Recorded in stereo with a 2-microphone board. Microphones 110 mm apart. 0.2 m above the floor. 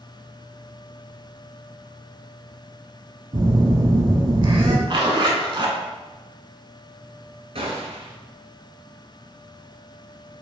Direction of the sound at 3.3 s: 45° right (ahead or behind).